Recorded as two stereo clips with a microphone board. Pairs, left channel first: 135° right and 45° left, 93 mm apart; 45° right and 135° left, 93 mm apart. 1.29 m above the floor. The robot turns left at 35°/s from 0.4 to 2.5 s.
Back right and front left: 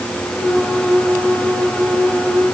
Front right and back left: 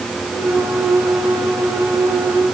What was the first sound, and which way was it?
Only background noise.